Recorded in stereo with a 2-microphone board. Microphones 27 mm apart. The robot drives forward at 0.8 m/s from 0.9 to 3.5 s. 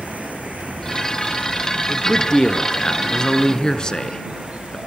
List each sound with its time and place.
0.0 s an insect: 65° right (ahead or behind), 3.5 m; by 4.9 s 45° right (ahead or behind), 4.5 m
1.9 s a man speaking: 20° left (ahead or behind), 3 m; by 4.8 s 30° left (ahead or behind), 2 m